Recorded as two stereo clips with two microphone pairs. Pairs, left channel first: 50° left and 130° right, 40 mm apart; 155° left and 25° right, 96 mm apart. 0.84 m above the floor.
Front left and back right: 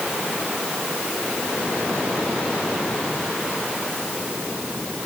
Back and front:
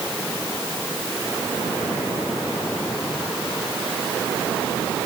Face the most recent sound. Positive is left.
No sound to turn to.